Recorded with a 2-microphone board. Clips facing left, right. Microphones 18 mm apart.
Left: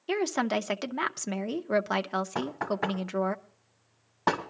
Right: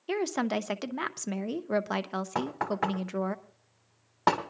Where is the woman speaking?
10° left (ahead or behind), 0.6 m.